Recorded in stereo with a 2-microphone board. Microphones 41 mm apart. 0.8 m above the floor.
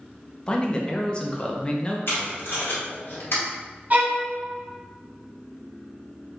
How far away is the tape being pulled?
About 1.3 m.